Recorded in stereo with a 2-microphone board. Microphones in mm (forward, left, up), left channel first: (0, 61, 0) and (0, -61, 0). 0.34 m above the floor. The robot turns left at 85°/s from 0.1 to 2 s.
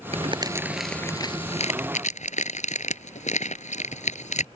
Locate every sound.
0.1 s crumpling: 60° right (ahead or behind); by 4.5 s 75° left (ahead or behind)